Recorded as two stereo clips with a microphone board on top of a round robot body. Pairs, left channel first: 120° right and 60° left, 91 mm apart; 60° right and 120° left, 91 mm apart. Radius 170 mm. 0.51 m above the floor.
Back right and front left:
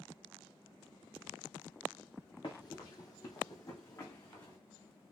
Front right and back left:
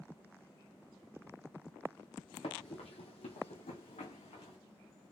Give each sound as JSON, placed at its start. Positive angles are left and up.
{"t": 2.4, "sound": "running footsteps", "azimuth_deg": -80, "distance_m": 0.6}